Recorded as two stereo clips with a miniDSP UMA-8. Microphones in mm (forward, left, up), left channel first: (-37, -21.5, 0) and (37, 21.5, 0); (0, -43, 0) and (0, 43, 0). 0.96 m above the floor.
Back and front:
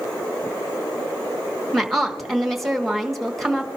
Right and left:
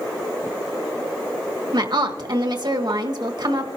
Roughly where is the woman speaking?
Behind left.